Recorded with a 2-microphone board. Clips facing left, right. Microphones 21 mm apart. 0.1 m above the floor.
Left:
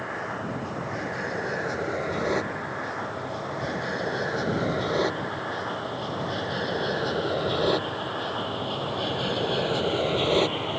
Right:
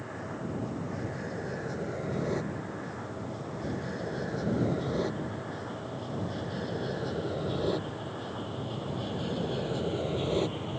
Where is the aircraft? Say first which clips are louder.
Left 7 dB; 40° left (ahead or behind); by 10.8 s 45° left (ahead or behind).